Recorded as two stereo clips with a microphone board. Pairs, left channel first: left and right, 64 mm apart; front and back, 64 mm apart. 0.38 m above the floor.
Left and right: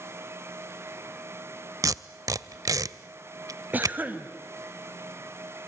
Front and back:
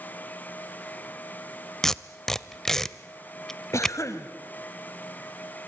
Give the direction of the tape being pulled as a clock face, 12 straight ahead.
3 o'clock.